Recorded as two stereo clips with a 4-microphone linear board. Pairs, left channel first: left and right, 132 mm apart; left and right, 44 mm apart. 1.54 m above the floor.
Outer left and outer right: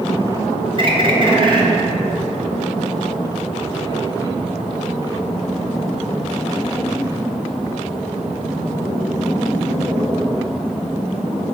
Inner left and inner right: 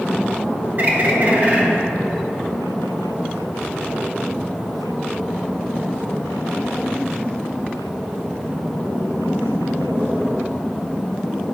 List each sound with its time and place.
0.8 s a bird: 40° right (ahead or behind), 1.0 m